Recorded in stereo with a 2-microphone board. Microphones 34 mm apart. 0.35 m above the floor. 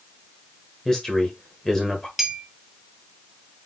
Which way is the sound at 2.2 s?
5° right (ahead or behind).